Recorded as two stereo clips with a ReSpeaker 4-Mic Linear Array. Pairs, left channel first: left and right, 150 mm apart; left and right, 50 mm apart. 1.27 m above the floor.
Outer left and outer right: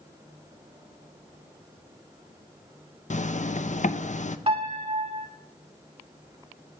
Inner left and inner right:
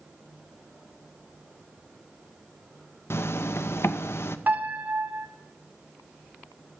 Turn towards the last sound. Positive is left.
turn(degrees=-40)  # may be behind; listen again after turning